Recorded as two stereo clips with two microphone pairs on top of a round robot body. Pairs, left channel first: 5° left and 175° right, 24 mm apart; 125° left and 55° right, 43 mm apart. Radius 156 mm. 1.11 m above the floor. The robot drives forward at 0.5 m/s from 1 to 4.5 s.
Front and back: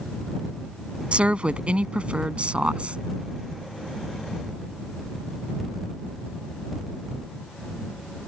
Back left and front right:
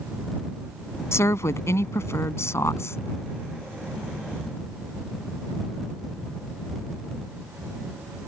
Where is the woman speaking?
145° left; by 3.0 s 150° left.